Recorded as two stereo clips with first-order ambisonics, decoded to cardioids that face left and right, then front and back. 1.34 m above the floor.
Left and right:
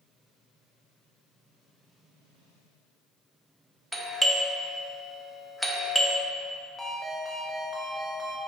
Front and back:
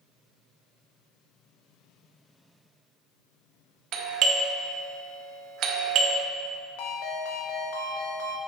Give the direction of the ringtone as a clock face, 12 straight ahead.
12 o'clock.